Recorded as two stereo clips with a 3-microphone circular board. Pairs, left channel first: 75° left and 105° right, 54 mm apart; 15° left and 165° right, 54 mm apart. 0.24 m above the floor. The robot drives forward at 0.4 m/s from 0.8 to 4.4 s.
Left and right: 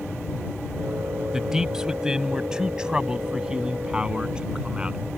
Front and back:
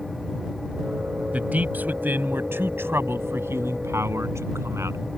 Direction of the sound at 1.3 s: 175° right.